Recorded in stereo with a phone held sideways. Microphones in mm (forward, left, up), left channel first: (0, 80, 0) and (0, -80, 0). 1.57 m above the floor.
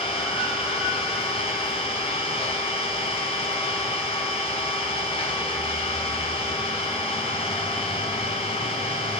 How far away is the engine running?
About 3 m.